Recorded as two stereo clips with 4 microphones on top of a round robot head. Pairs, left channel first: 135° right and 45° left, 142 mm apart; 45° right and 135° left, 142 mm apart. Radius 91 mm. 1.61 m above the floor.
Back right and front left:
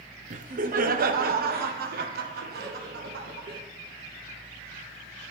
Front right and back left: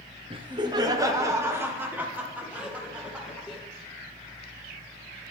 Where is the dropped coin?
I don't hear a dropped coin.